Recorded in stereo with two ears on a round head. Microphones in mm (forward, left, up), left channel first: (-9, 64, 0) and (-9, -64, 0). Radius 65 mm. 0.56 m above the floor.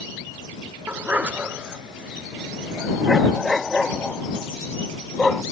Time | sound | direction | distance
0.9 | a dog barking | 10° right (ahead or behind) | ?